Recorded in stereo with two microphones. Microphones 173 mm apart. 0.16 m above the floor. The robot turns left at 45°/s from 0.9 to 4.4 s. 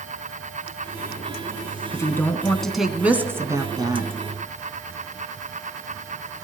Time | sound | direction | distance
1.9 | a woman speaking | 35° left | 1.2 m